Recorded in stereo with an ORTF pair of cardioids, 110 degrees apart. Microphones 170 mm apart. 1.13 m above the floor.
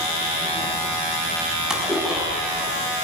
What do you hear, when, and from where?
1.7 s a splash: 5° right, 6.5 m